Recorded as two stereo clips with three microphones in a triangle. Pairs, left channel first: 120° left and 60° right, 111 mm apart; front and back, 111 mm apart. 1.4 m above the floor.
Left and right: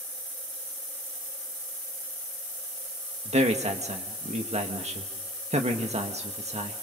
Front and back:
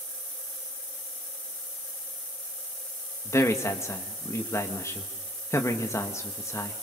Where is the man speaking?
65° right, 1.6 m.